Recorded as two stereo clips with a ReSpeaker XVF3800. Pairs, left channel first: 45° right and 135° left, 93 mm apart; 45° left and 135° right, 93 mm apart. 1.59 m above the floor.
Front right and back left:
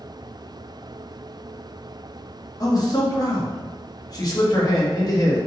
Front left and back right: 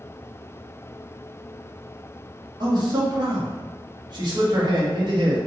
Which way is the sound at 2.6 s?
95° right.